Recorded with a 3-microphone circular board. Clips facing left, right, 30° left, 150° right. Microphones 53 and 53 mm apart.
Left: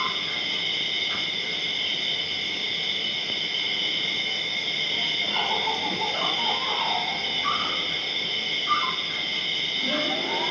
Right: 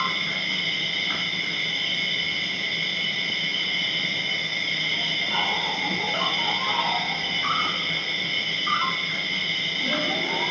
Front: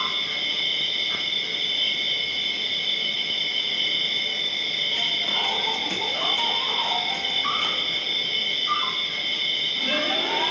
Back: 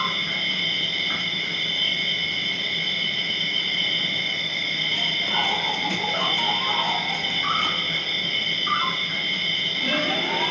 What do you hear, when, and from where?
0.0 s an insect: 125° right, 1.3 m